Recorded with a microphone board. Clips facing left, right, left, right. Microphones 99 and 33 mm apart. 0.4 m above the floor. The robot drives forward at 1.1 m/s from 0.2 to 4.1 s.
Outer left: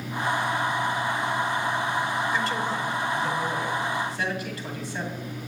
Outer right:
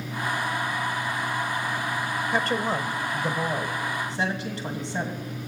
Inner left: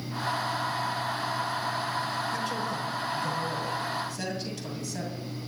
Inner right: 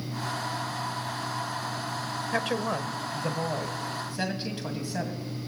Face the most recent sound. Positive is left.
turn(degrees=-30)  # may be behind; listen again after turning